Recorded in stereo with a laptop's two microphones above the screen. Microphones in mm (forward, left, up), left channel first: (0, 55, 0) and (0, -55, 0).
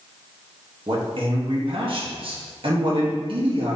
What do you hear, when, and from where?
0.9 s a man speaking: 55° right (ahead or behind), 0.9 m